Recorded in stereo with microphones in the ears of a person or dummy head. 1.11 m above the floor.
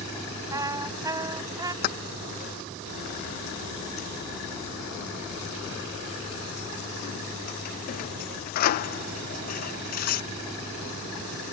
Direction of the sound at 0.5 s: 15° right (ahead or behind).